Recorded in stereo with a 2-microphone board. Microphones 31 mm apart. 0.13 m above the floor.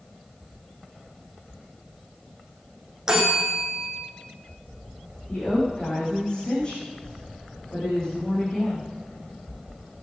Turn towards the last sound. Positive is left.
turn(degrees=30)  # may be behind; listen again after turning